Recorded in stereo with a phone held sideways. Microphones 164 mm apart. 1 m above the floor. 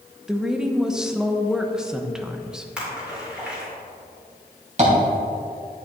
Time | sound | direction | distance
0.3 | a woman speaking | 5° right (ahead or behind) | 0.7 m
2.8 | a splash | 5° right (ahead or behind) | 3 m
4.8 | tapping | 45° right (ahead or behind) | 2.5 m